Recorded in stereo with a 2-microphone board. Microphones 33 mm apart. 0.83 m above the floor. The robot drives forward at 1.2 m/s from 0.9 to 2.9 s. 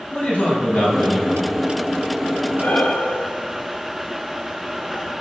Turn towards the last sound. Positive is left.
turn(degrees=50)  # may be behind; listen again after turning